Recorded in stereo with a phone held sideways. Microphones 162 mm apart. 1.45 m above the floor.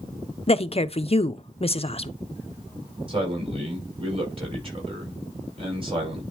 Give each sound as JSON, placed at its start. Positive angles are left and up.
{"t": 0.5, "sound": "a woman speaking", "side_deg": 40, "distance_m": 0.6}
{"t": 3.1, "sound": "a man speaking", "side_deg": -40, "distance_m": 5.0}